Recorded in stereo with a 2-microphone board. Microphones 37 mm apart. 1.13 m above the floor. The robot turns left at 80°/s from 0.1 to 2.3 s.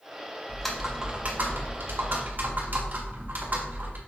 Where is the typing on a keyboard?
20° left, 1.3 m; by 4.0 s 125° right, 1.3 m.